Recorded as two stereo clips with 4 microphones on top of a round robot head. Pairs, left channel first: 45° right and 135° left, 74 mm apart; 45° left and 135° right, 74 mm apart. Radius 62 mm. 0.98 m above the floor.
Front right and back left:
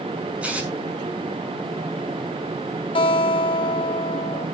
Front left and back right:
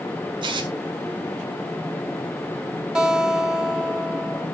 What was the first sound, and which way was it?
Tearing paper, 150° right.